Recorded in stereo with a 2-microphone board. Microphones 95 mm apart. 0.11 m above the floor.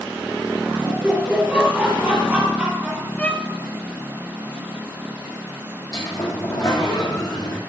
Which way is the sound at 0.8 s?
5° right (ahead or behind).